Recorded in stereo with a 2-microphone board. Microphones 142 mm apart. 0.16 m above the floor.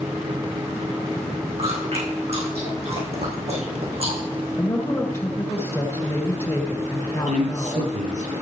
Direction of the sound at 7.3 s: 70° right (ahead or behind).